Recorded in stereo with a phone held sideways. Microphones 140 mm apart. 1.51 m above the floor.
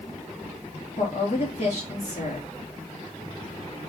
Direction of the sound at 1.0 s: 50° left (ahead or behind).